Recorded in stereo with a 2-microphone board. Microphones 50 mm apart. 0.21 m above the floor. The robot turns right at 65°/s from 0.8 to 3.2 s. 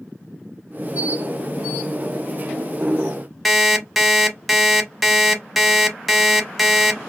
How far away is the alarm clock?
About 0.5 m.